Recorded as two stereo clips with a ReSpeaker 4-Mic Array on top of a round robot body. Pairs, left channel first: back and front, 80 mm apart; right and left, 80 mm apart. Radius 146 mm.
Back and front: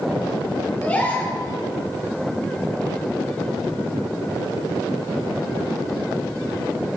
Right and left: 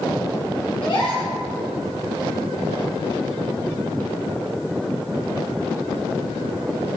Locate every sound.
0.8 s a gasp: 110° right, 3.5 m